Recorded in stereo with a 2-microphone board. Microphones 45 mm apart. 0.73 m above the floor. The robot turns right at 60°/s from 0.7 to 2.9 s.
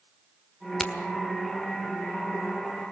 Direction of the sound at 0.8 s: Centre (ahead or behind).